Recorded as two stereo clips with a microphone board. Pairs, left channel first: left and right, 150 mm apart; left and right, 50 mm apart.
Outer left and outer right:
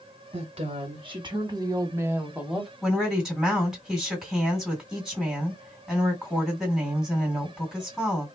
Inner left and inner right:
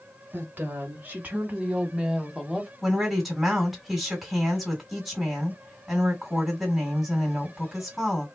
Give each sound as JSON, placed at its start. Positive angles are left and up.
{"t": 0.3, "sound": "a woman speaking", "side_deg": -40, "distance_m": 2.0}
{"t": 2.8, "sound": "a woman speaking", "side_deg": 0, "distance_m": 2.0}